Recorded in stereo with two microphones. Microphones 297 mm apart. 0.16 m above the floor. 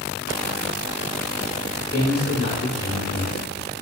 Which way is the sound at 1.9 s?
35° left (ahead or behind).